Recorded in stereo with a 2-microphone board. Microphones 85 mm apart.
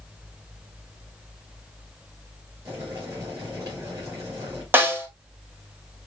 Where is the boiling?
35° right (ahead or behind), 3.5 m.